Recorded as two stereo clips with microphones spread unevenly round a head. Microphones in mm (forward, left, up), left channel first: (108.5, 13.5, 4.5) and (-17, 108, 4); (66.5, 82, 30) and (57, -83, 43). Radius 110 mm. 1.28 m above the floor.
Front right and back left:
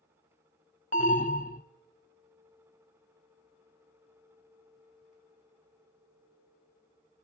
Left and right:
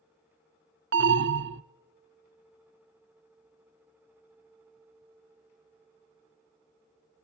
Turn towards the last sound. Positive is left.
turn(degrees=-95)